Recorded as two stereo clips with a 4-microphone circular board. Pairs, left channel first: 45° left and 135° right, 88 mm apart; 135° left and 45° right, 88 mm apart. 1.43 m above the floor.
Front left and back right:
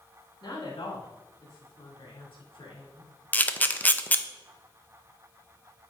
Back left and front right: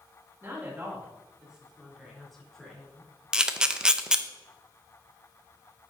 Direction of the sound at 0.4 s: 15° left.